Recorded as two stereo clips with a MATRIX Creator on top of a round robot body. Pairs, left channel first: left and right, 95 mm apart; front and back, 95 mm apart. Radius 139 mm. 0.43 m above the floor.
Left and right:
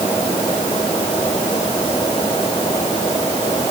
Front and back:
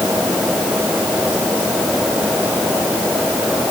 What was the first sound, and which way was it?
Only background noise.